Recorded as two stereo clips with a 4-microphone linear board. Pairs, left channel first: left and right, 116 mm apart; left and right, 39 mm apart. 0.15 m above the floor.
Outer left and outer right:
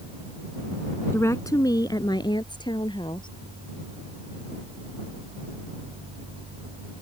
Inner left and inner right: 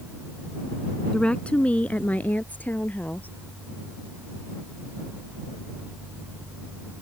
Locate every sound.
1.1 s a woman speaking: 25° left (ahead or behind); by 3.3 s 45° left (ahead or behind)